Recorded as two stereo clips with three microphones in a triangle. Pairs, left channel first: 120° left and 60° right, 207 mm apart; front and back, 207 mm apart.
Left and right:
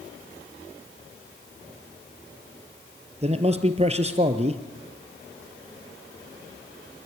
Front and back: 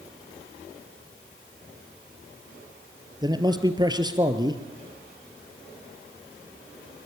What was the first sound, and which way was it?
A man speaking, 110° right.